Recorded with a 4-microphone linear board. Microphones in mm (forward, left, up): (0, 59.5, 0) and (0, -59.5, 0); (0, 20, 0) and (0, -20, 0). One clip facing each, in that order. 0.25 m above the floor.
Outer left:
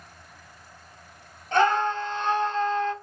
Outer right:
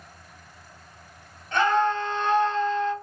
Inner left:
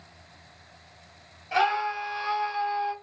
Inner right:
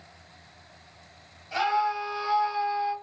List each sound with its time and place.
1.5 s a scream: 30° left (ahead or behind), 1.1 m